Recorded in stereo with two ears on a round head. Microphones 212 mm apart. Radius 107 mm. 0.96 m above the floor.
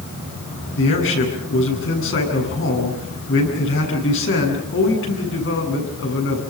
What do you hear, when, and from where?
0.8 s a man speaking: 60° left (ahead or behind), 8.5 m